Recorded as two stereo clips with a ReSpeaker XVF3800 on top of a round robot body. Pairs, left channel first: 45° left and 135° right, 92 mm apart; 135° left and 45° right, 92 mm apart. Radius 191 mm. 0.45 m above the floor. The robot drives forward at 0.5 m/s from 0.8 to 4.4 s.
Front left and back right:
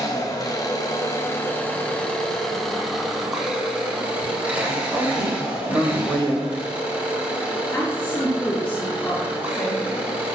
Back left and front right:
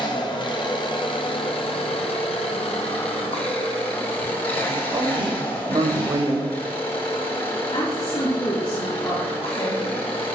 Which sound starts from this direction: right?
A woman speaking, at 4.9 s.